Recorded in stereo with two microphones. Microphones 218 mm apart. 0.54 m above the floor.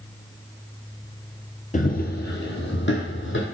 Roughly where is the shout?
No shout in this recording.